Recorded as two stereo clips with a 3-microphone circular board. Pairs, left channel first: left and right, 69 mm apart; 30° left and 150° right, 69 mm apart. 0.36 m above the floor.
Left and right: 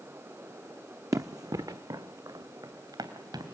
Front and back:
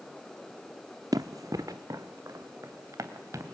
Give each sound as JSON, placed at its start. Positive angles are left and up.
{"t": 1.1, "sound": "running footsteps", "azimuth_deg": -120, "distance_m": 0.9}